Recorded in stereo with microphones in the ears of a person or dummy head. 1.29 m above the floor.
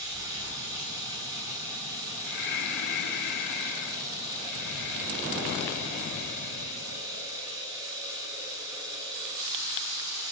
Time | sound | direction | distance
0.0 | running water | 10° right (ahead or behind) | 9 m
2.3 | breathing | 55° left (ahead or behind) | 1.7 m